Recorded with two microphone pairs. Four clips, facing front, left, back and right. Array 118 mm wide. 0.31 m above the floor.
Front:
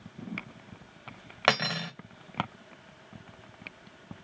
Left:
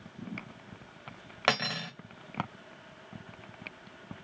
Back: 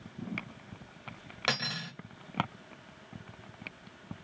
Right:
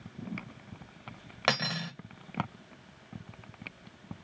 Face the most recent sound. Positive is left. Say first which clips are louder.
# left 1 dB, front 8 dB
turn(degrees=0)